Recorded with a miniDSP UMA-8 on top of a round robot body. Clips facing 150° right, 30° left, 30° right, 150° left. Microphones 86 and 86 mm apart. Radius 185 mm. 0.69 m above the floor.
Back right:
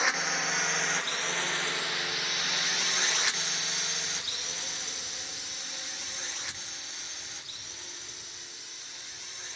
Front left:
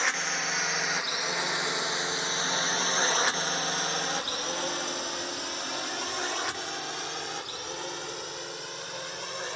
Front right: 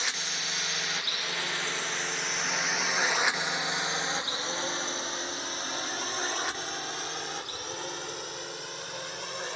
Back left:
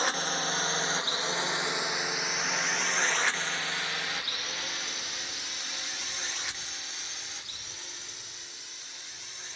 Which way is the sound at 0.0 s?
125° left.